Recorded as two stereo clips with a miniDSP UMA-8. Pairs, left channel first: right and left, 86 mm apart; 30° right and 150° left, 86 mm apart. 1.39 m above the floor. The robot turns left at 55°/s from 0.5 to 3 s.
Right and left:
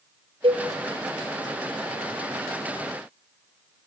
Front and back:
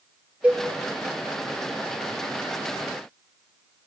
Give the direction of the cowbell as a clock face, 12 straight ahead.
10 o'clock.